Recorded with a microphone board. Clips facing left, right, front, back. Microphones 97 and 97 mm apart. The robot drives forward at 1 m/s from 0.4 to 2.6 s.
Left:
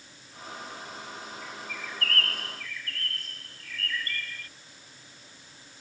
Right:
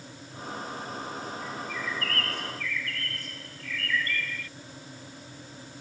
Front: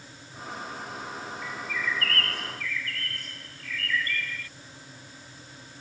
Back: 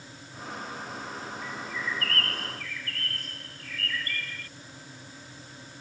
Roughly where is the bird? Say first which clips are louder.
Right 5 dB, front 3 dB; left.